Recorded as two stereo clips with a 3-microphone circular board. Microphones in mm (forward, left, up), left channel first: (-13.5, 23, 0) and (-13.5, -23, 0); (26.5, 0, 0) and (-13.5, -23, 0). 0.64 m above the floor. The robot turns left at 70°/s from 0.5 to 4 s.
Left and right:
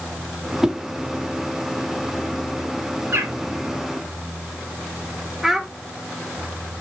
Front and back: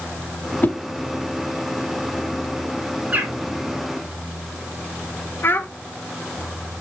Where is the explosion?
I don't hear an explosion.